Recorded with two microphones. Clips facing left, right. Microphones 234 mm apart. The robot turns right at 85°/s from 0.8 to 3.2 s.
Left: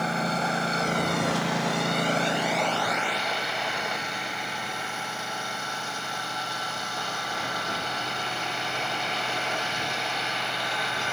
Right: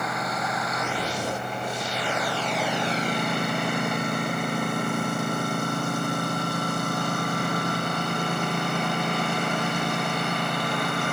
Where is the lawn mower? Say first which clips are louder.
Left 2 dB; 30° left; by 11.1 s 125° right.